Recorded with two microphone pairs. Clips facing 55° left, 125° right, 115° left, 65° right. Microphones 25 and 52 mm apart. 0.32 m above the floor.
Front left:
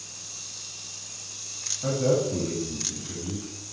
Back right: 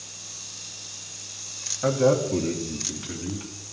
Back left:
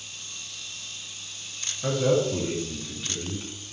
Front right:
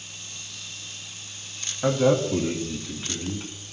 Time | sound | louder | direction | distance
1.8 | a man speaking | back right 3 dB, front right 2 dB | 90° right | 2 m